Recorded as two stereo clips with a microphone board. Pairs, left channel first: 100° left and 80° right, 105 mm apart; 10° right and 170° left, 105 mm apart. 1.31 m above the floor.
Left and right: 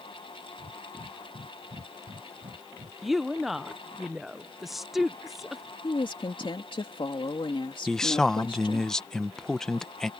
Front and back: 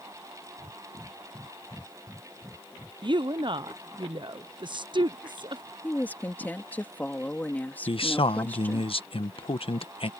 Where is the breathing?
105° right.